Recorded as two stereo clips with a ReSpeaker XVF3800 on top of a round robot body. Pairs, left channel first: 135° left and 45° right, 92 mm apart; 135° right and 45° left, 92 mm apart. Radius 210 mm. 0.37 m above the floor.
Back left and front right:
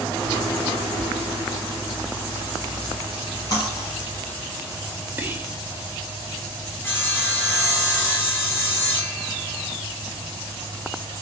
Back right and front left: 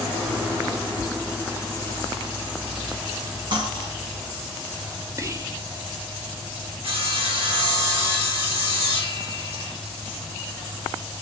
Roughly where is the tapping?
Left.